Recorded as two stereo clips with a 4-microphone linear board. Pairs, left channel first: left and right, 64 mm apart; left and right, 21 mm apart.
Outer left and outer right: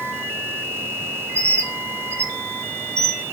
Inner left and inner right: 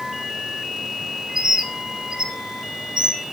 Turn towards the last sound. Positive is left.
turn(degrees=-45)  # may be behind; listen again after turning